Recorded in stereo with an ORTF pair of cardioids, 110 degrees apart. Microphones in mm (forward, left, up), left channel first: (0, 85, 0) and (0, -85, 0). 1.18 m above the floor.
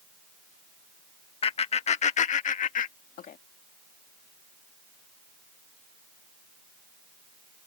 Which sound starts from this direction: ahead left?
Laughter, at 1.4 s.